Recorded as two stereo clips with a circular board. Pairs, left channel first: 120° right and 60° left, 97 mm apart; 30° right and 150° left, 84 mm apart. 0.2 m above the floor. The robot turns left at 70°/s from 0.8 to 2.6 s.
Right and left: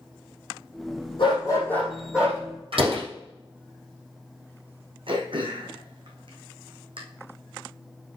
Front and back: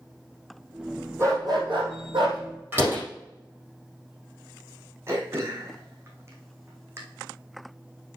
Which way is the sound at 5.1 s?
90° left.